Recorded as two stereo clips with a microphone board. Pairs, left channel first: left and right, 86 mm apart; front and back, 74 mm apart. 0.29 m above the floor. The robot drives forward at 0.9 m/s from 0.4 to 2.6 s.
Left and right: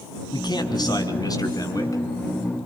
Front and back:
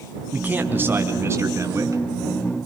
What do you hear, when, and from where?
0.3 s a man speaking: 115° left, 3 m; by 2.0 s 135° left, 3.5 m